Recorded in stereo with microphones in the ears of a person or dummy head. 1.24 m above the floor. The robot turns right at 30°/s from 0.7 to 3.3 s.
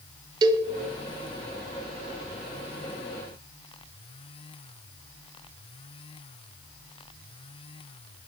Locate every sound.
0.4 s a cowbell: 25° right (ahead or behind), 1.5 m